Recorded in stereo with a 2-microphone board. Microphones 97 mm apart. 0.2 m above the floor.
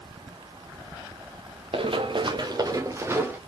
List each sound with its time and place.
1.7 s running footsteps: 70° right (ahead or behind), 1.4 m; by 3.4 s 20° right (ahead or behind), 1.5 m